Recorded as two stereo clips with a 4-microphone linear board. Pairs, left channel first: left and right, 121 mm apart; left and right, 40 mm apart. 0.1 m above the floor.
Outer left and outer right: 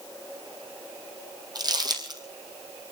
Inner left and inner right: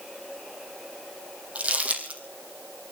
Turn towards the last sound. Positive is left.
turn(degrees=-35)  # may be behind; listen again after turning